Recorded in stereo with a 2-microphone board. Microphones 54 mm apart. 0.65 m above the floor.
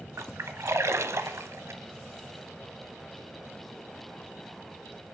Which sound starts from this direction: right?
A splash, at 0.2 s.